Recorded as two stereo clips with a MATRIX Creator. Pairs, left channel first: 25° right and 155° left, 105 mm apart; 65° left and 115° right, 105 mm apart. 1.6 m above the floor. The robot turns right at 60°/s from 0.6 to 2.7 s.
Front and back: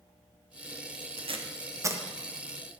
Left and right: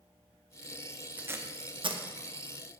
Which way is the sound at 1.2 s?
175° left.